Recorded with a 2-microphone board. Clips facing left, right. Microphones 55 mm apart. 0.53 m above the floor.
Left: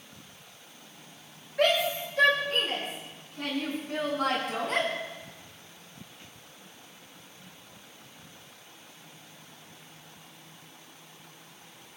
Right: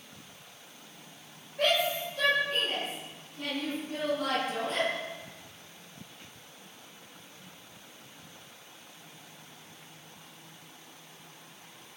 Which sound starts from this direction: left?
A shout, at 1.6 s.